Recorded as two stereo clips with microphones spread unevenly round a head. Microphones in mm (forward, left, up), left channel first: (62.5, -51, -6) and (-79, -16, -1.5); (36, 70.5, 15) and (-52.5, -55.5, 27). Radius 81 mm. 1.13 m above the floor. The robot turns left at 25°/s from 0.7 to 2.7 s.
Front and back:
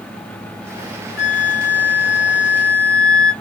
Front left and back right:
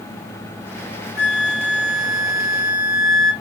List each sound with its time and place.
1.2 s a flute: 60° left, 1.0 m; by 3.3 s 20° left, 1.0 m